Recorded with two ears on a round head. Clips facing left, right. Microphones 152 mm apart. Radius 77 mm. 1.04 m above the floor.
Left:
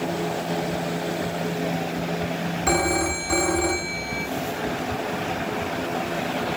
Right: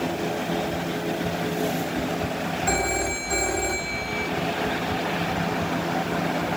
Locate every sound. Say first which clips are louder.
2.7 s a phone ringing: left 5 dB; 75° left (ahead or behind), 1.4 m